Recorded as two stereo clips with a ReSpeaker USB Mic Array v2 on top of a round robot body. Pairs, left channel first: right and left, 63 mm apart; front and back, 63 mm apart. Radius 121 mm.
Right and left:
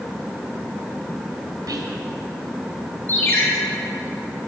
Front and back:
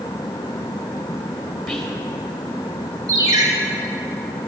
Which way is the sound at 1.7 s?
95° left.